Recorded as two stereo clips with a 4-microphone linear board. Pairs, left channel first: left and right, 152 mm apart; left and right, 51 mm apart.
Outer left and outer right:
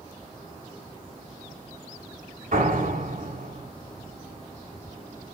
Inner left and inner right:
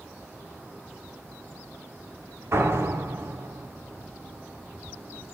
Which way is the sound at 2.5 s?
65° right (ahead or behind).